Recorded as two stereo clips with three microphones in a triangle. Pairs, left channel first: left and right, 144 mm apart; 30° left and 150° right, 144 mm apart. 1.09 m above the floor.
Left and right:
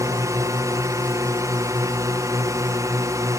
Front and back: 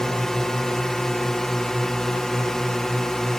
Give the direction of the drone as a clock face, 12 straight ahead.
2 o'clock.